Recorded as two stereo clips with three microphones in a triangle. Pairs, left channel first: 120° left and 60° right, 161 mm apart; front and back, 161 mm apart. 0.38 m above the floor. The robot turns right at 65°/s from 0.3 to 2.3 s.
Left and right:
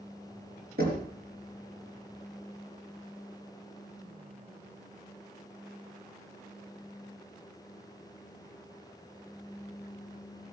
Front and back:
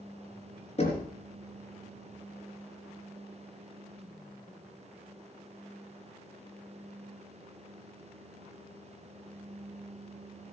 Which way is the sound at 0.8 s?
50° right.